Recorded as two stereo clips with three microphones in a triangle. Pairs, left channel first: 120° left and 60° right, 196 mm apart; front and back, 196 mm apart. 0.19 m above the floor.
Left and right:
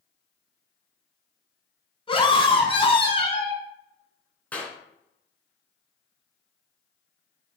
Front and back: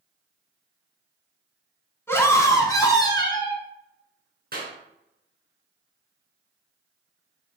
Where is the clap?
160° right, 2.5 m.